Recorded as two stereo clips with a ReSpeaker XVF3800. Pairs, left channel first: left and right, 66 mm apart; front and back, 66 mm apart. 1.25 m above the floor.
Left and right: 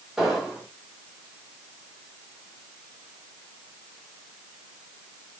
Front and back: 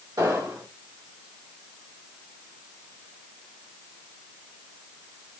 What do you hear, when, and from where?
0.2 s an explosion: 175° right, 2 m